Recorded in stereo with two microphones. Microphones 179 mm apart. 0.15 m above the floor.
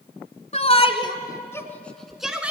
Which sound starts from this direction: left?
A shout, at 0.5 s.